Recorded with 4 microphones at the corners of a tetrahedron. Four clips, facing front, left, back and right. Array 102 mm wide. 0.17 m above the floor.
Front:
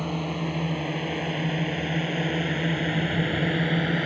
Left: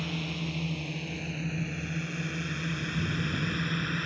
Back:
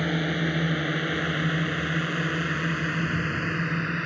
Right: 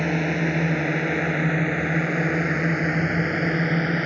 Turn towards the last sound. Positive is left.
turn(degrees=-60)